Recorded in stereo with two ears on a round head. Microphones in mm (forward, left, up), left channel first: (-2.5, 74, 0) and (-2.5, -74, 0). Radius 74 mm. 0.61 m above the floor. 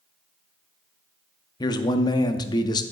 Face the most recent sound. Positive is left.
turn(degrees=25)  # may be behind; listen again after turning